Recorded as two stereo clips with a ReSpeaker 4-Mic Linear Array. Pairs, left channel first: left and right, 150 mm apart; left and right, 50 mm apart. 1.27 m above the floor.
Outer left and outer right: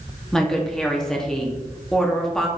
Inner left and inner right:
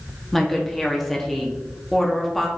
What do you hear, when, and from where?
0.3 s a woman speaking: 5° left (ahead or behind), 0.8 m